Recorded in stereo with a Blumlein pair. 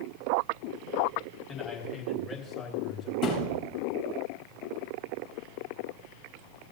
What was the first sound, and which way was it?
A man speaking, 5° left.